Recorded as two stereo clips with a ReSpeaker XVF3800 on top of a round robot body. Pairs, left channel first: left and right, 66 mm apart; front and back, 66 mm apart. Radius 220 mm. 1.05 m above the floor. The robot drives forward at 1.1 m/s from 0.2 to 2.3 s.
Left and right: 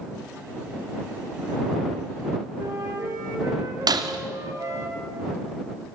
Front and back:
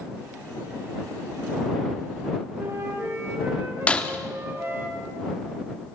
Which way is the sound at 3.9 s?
70° right.